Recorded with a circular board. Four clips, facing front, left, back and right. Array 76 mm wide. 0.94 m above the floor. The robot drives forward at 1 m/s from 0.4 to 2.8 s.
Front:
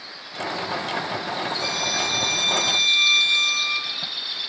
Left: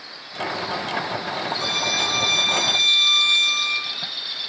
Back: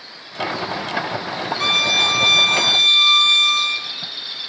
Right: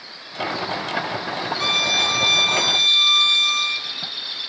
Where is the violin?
160° right, 1.0 m; by 3.9 s 170° right, 2 m.